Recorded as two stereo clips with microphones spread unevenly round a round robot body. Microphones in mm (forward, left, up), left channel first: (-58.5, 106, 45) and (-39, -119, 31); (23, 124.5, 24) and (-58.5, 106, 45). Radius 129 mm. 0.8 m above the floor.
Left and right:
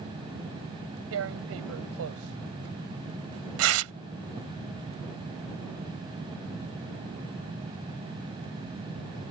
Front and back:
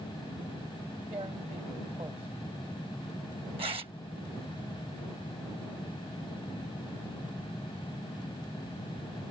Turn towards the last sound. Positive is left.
turn(degrees=-105)